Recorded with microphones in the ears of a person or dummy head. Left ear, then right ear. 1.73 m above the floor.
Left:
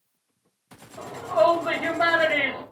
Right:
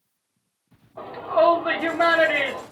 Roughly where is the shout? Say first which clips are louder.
Right 1 dB; right.